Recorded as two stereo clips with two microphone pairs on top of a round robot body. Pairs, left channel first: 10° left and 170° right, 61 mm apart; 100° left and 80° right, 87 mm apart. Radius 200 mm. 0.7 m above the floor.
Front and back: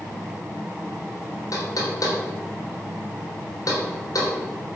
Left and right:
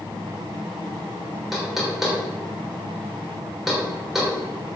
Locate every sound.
1.5 s knocking: 5° left, 3.5 m